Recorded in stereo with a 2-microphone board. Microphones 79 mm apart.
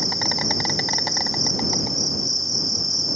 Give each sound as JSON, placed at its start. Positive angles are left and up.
{"t": 0.0, "sound": "an insect", "side_deg": 0}